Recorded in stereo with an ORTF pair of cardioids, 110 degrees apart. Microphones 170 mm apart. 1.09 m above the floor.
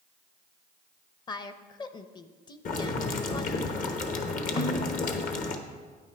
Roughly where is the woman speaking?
Ahead left.